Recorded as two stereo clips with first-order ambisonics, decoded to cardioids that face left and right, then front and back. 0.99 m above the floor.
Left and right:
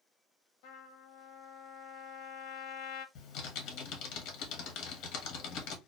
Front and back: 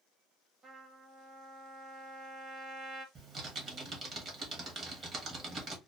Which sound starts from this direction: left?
A trumpet, at 0.6 s.